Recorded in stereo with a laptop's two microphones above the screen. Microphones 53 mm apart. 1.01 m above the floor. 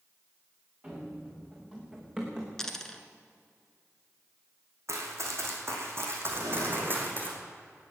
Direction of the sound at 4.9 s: 60° right (ahead or behind).